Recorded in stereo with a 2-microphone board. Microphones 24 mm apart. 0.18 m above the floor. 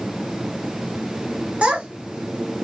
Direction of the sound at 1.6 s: 60° right (ahead or behind).